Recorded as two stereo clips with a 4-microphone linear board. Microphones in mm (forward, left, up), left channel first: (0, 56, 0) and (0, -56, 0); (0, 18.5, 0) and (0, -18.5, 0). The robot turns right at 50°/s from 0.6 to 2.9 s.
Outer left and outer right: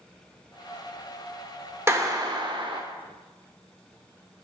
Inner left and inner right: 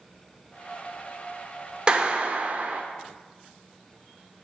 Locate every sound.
1.9 s a clap: 150° right, 0.9 m; by 2.8 s 100° right, 0.9 m